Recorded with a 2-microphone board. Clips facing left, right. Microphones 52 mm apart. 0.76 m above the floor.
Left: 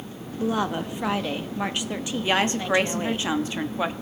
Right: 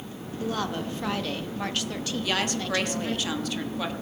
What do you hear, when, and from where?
0.4 s a woman speaking: 20° left (ahead or behind), 0.7 m
2.2 s a woman speaking: 30° left (ahead or behind), 0.9 m